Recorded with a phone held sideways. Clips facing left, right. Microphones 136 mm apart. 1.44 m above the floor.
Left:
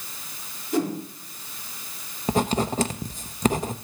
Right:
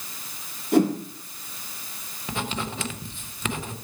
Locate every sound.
0.7 s a whoosh: 65° right (ahead or behind), 2 m
2.3 s writing: 40° left (ahead or behind), 0.6 m